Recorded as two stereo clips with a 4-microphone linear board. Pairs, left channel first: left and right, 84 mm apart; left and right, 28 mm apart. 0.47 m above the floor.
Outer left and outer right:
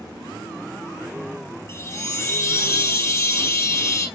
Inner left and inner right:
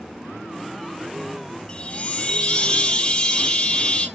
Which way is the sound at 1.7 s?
35° left (ahead or behind).